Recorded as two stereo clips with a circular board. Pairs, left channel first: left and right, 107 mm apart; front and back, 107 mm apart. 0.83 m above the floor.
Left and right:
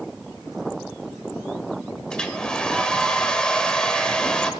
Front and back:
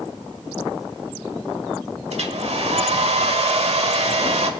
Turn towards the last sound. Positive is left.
turn(degrees=170)